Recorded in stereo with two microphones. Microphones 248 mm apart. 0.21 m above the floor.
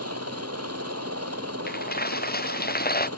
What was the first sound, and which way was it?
A helicopter, 75° right (ahead or behind).